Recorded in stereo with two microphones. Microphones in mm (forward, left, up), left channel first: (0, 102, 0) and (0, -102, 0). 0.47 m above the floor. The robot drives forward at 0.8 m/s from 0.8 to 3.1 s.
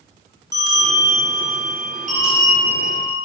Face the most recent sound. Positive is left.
turn(degrees=-25)  # may be behind; listen again after turning